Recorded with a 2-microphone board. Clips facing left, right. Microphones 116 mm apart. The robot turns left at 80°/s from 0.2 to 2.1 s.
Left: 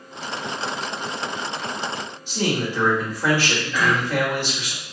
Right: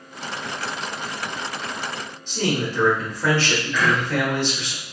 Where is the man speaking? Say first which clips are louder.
Even; 10° left (ahead or behind), 1.2 m.